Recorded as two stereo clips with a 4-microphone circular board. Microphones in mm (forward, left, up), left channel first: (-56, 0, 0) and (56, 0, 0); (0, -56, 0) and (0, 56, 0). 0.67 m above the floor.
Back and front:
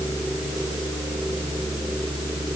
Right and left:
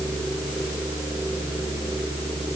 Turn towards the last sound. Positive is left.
No sound to turn to.